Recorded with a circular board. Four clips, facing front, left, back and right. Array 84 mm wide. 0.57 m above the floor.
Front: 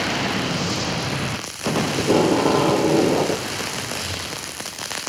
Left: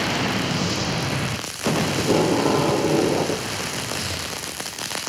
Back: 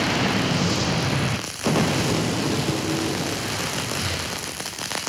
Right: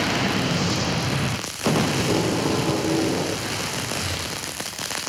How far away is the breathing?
About 5.5 m.